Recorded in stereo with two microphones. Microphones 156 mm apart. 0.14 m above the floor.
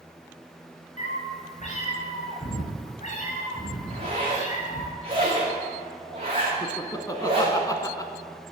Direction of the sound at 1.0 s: 50° left (ahead or behind).